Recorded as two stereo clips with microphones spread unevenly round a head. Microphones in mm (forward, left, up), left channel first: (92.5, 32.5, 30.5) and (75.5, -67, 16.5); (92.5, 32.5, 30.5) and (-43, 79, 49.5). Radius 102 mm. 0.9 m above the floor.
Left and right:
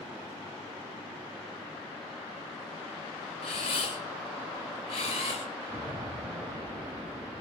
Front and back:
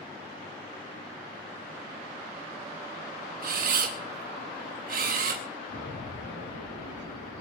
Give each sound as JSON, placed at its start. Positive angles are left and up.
{"t": 3.4, "sound": "a camera shutter", "azimuth_deg": 140, "distance_m": 3.0}
{"t": 5.7, "sound": "an explosion", "azimuth_deg": -40, "distance_m": 10.0}